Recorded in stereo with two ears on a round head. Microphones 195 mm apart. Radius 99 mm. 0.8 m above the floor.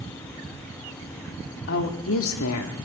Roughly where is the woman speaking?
Left.